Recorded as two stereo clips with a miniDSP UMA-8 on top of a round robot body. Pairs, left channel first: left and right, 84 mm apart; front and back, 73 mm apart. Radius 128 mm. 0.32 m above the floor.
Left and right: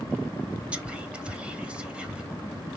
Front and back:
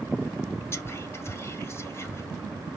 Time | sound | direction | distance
0.7 | whispering | 20° right | 1.8 m